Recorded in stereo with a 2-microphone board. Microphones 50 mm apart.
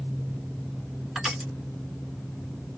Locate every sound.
1.1 s crushing: 10° right (ahead or behind), 1.7 m